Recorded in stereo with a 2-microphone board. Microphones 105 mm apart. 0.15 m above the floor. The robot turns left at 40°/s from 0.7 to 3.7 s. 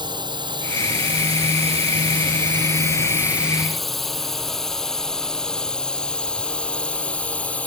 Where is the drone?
45° right (ahead or behind); by 7.7 s 10° left (ahead or behind).